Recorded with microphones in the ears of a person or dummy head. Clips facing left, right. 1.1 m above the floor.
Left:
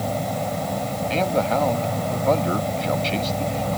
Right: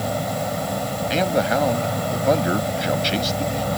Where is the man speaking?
10° right (ahead or behind).